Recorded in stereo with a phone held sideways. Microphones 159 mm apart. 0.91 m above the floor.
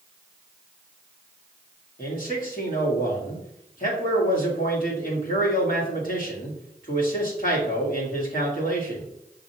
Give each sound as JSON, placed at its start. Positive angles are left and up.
{"t": 2.0, "sound": "a man speaking", "side_deg": 60, "distance_m": 1.5}